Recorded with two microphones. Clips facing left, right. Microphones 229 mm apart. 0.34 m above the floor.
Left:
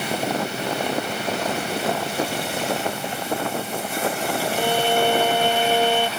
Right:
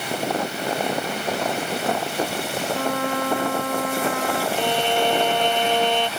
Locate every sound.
2.7 s a trumpet: 85° right
4.6 s a violin: 10° left (ahead or behind)